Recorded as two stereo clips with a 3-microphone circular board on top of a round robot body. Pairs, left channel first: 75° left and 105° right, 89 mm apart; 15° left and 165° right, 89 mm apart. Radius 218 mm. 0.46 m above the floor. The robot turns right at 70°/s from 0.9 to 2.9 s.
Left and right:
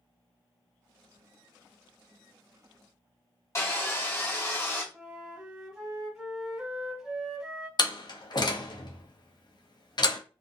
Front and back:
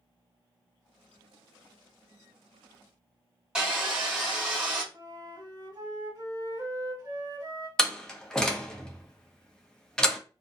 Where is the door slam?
95° left, 0.8 m.